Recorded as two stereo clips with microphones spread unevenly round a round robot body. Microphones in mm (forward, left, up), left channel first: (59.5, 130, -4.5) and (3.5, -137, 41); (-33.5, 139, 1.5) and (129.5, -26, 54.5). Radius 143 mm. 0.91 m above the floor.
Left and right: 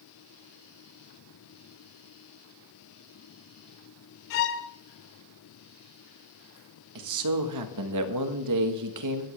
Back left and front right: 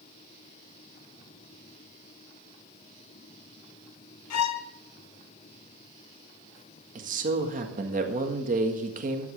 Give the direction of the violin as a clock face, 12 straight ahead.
8 o'clock.